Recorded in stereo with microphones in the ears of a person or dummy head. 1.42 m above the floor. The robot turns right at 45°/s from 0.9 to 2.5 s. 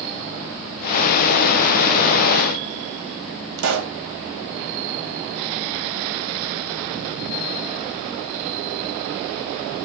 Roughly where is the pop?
Right.